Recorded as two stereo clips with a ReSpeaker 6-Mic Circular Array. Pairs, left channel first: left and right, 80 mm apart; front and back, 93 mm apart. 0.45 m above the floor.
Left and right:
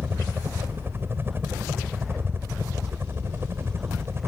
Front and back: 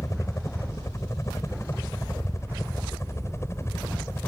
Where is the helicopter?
40° right; by 4.3 s 45° right.